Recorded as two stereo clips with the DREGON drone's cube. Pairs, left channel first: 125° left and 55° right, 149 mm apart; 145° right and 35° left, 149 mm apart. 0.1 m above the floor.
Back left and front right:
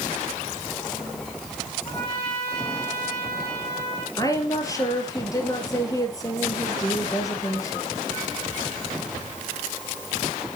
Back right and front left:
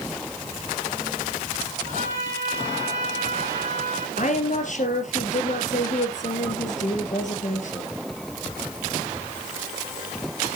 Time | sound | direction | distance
1.9 | a trumpet | 75° left | 8.5 m
4.2 | a woman speaking | 170° right | 3 m